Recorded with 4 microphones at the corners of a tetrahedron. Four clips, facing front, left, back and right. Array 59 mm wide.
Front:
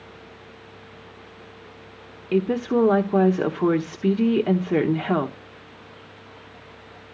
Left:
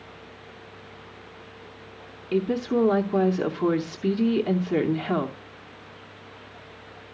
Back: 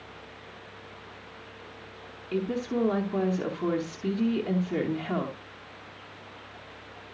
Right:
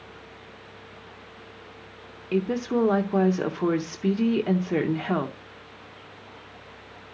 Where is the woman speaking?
10° right, 0.9 m.